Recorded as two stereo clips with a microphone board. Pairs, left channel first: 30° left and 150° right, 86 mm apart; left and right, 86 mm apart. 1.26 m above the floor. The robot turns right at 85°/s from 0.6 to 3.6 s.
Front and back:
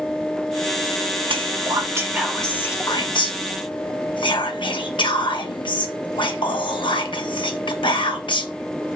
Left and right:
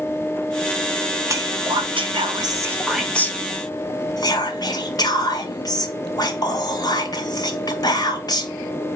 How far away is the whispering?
About 1.1 m.